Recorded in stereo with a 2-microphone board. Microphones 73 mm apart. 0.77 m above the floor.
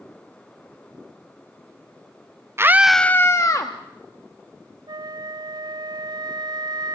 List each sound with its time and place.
2.6 s a scream: 35° right (ahead or behind), 0.6 m; by 3.7 s 50° left (ahead or behind), 1.2 m
4.9 s a flute: 65° right (ahead or behind), 0.6 m